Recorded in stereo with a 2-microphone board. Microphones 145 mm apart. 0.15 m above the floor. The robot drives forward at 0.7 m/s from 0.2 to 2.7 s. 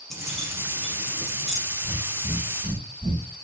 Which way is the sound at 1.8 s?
20° left (ahead or behind).